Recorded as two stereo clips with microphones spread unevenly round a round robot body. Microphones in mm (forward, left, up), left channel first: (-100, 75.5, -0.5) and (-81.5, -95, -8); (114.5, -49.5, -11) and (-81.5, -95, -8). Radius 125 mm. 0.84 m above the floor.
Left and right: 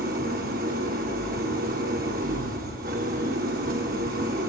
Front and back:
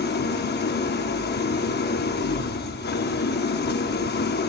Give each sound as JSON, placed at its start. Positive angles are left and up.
{"t": 0.0, "sound": "an engine running", "azimuth_deg": -30, "distance_m": 0.8}